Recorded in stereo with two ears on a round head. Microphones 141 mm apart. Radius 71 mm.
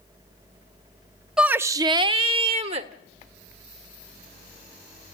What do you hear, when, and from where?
1.4 s a shout: 5° right (ahead or behind), 0.6 m; by 2.9 s 40° right (ahead or behind), 1.5 m